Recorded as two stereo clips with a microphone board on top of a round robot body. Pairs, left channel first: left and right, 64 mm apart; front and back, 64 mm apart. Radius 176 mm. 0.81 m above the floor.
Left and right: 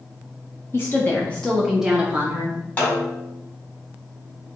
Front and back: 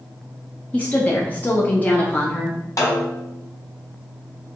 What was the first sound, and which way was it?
A woman speaking, 60° left.